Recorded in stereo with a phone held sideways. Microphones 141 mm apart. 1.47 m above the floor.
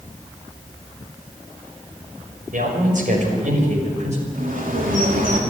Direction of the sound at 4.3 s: 75° right (ahead or behind).